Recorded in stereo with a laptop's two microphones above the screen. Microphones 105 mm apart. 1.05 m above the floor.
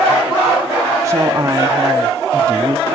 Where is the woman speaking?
30° right (ahead or behind), 1.5 m.